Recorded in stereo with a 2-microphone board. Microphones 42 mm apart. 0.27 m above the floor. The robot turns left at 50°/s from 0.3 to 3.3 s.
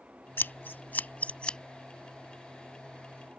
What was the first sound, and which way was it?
Scissors, 65° left (ahead or behind).